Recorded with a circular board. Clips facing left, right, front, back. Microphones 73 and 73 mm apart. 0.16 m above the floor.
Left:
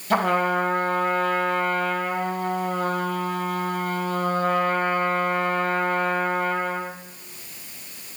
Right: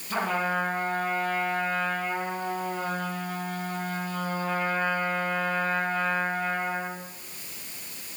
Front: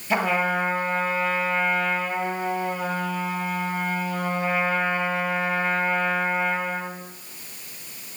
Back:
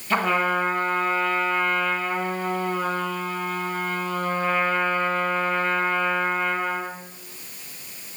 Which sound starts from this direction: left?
A trumpet, at 0.1 s.